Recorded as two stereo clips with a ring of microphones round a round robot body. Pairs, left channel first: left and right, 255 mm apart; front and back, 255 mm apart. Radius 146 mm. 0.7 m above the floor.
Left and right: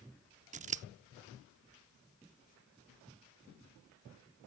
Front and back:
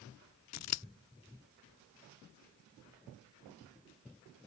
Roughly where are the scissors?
Ahead right.